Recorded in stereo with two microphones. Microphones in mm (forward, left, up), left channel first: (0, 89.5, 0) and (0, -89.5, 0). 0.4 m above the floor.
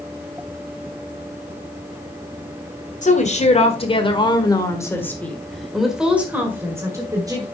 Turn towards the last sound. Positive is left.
turn(degrees=-20)  # may be behind; listen again after turning